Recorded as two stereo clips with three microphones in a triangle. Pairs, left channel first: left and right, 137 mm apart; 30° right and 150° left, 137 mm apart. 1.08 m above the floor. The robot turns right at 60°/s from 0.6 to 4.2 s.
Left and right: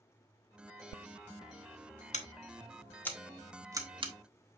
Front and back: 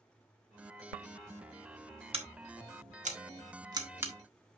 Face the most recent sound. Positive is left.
turn(degrees=-125)